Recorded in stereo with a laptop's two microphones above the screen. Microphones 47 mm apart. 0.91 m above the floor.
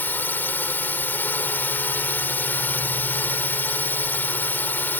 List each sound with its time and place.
0.0 s a drone: 40° left (ahead or behind)